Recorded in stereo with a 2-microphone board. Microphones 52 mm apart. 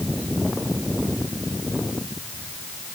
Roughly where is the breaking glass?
No breaking glass in this recording.